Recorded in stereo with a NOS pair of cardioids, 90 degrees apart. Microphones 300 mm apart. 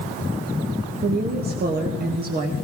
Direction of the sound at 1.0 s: 35° right.